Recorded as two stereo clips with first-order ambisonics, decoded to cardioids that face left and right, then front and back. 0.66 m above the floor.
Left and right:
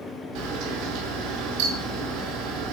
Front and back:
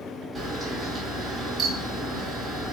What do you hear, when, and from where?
0.3 s a camera shutter: 110° right, 3 m